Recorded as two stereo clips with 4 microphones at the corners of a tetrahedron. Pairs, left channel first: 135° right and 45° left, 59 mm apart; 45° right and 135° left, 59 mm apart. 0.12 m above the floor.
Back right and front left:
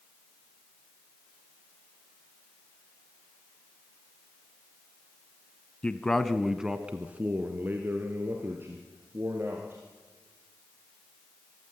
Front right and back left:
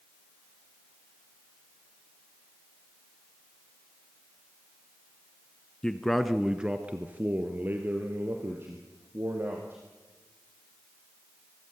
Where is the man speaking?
100° right, 1.1 m; by 9.8 s 90° left, 3.5 m.